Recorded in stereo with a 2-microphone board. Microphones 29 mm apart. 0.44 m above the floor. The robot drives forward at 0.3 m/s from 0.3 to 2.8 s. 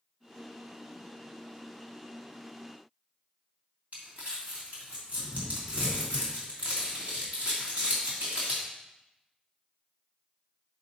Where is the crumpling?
55° right (ahead or behind), 2.5 m.